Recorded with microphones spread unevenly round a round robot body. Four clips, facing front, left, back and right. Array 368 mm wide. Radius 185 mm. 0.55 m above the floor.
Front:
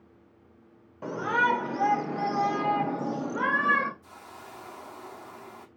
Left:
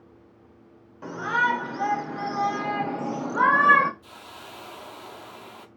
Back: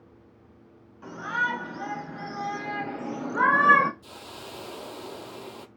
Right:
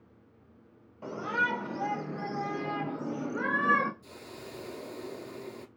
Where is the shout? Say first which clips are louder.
Left 6 dB, front 4 dB; 15° left, 3 m; by 3.9 s 170° left, 1.2 m.